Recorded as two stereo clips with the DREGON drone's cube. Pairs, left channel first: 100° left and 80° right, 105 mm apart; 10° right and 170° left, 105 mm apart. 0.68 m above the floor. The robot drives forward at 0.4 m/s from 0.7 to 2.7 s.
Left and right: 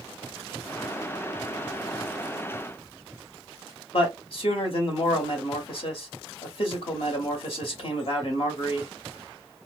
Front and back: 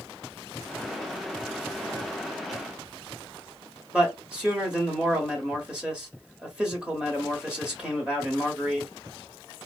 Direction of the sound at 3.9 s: 90° left.